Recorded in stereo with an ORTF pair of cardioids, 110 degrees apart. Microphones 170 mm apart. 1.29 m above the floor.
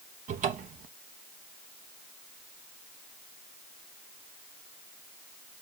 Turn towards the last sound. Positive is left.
turn(degrees=-45)